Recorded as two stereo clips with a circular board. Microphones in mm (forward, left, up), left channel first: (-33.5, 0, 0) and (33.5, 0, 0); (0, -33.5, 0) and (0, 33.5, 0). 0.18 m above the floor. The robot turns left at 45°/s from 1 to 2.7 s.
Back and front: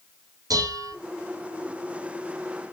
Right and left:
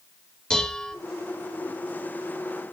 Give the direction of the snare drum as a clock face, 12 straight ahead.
No snare drum in this recording.